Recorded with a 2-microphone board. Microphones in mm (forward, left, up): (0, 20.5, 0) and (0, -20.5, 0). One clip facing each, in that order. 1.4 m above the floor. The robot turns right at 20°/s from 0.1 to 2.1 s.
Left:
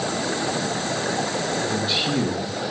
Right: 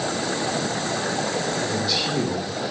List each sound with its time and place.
1.7 s a man speaking: 25° left (ahead or behind), 2 m; by 2.5 s 35° left (ahead or behind), 2 m